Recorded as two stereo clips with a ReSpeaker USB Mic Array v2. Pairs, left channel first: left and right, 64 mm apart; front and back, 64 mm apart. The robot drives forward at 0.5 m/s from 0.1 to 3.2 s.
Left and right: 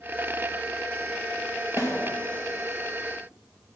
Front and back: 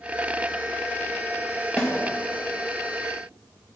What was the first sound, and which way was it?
A snare drum, 75° left.